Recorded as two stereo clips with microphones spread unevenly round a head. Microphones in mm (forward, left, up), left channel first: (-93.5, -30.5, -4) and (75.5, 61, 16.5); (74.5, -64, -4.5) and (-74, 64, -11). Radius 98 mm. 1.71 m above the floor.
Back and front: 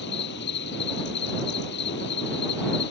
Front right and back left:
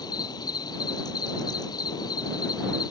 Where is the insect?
110° right.